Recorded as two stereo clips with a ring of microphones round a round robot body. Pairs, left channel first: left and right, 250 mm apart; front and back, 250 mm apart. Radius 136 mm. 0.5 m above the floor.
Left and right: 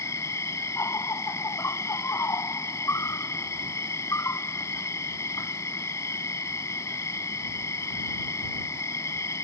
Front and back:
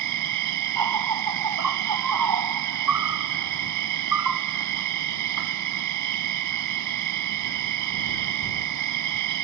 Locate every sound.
0.0 s an insect: 170° left